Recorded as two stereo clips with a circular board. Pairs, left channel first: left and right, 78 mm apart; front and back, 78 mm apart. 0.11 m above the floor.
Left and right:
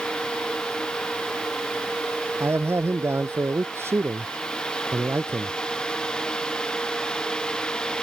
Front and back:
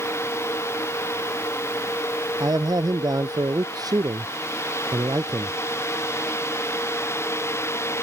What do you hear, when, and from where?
2.4 s a man speaking: 145° right